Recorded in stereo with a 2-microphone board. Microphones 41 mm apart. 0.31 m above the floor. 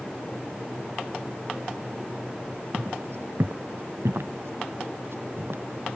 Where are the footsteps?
70° right (ahead or behind).